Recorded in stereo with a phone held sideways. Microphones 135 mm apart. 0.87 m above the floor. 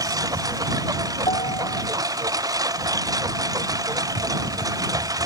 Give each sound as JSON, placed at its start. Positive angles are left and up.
{"t": 0.0, "sound": "a lawn mower", "side_deg": -25}
{"t": 1.3, "sound": "a piano", "side_deg": 45}